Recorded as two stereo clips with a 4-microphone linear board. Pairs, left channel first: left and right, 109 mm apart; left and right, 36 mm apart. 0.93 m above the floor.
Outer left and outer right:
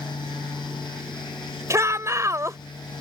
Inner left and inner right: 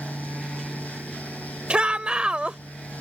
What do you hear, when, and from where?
1.7 s a shout: 25° right (ahead or behind)